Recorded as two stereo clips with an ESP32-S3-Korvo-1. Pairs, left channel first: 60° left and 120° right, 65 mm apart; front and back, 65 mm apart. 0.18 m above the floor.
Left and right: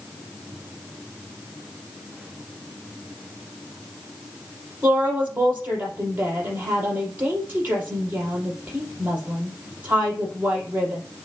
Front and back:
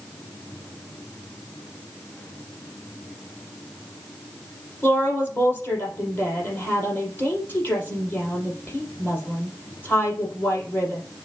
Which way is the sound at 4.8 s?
60° right.